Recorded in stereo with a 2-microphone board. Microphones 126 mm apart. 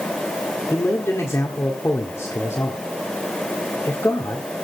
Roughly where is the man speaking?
Left.